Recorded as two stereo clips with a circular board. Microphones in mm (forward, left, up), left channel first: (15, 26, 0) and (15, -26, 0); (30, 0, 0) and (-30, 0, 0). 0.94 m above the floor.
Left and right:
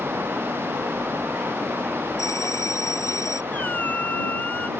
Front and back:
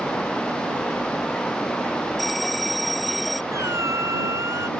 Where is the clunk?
No clunk in this recording.